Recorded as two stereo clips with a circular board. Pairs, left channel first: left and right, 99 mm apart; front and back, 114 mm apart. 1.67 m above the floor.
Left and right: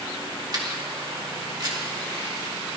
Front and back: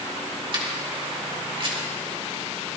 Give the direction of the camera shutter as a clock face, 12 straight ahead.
5 o'clock.